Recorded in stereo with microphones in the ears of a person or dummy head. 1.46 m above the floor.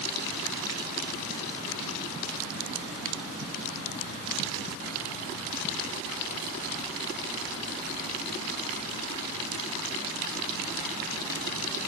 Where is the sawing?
I don't hear sawing.